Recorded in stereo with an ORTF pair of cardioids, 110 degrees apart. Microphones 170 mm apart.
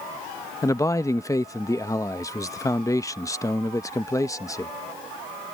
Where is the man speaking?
20° left.